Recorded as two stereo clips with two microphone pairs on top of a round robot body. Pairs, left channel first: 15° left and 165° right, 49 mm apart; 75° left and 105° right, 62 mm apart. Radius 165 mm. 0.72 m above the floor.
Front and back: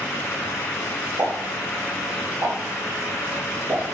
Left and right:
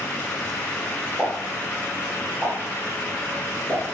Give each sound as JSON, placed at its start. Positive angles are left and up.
{"t": 1.2, "sound": "a pop", "azimuth_deg": 165, "distance_m": 1.9}